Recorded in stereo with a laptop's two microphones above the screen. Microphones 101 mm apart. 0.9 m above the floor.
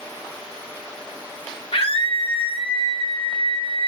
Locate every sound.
1.7 s a scream: 75° left (ahead or behind), 3 m; by 3.9 s 80° left, 4.5 m